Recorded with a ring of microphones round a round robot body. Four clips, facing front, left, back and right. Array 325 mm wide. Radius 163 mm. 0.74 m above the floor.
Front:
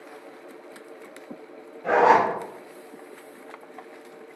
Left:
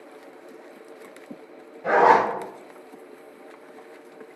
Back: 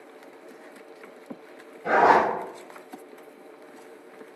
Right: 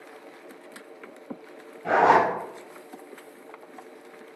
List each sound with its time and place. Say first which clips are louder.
1.8 s a zipper: left 2 dB, front 1 dB; 60° left, 1.5 m